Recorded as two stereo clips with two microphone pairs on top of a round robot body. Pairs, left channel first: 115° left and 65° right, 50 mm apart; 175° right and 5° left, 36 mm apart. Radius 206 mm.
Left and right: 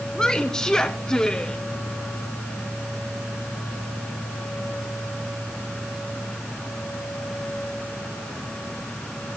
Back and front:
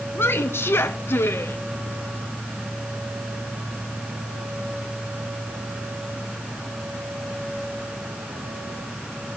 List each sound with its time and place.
0.1 s a woman speaking: 165° right, 1.2 m